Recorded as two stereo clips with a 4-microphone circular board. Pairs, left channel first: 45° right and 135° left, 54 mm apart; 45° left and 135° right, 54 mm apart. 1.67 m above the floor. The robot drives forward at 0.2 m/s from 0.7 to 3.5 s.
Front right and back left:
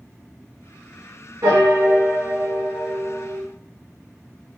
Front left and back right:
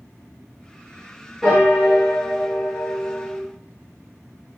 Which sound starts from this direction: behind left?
A piano, at 1.4 s.